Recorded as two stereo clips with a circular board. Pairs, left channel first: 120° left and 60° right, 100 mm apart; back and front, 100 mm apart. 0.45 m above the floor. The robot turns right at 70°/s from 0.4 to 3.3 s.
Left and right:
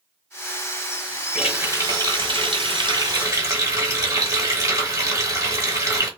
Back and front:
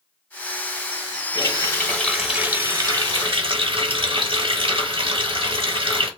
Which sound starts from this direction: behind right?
A running tap, at 1.4 s.